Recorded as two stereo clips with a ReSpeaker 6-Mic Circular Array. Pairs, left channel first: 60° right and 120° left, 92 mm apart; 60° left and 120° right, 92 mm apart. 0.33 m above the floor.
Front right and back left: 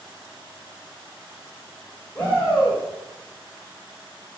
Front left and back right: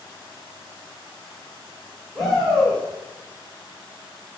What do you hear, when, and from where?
2.1 s a shout: 20° right, 1.0 m